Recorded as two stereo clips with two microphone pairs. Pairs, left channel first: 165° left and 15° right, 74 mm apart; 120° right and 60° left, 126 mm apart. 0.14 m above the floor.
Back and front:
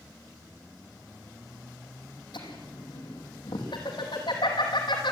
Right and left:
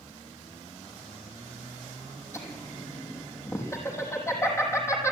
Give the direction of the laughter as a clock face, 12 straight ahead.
6 o'clock.